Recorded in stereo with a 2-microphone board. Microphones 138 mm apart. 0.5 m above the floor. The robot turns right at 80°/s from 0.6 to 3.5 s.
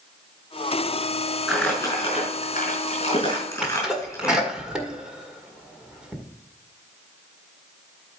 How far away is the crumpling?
About 4.5 m.